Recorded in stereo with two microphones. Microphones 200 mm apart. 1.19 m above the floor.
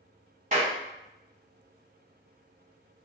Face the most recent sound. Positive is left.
turn(degrees=-40)  # may be behind; listen again after turning